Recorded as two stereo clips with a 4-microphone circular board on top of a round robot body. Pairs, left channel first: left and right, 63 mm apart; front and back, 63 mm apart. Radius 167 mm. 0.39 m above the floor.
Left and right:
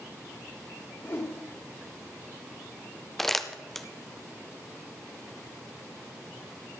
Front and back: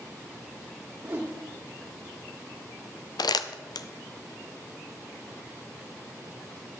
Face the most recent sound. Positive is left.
turn(degrees=5)